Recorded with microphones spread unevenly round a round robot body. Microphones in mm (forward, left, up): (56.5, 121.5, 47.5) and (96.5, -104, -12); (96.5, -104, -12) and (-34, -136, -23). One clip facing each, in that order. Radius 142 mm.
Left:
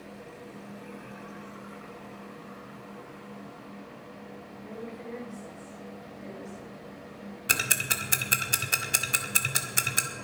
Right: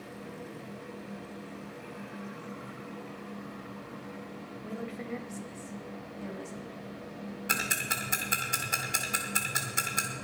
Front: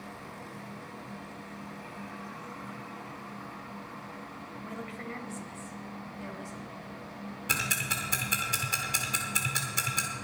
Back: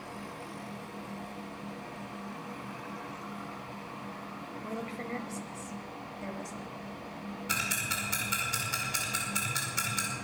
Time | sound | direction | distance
4.6 | a woman speaking | 115° right | 2.5 m
7.5 | ticking | 55° left | 1.8 m